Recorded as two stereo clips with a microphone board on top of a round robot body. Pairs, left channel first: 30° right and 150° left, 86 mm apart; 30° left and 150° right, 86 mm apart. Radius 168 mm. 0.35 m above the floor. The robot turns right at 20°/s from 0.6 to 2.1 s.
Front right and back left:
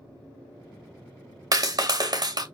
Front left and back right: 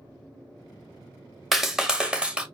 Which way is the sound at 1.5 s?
120° left.